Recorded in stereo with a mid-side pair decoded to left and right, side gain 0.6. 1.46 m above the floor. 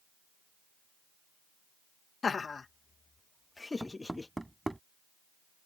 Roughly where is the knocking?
Ahead.